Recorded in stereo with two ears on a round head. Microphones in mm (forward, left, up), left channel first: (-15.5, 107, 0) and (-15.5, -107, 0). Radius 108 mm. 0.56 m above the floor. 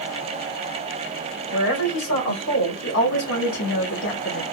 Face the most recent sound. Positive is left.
turn(degrees=50)  # may be behind; listen again after turning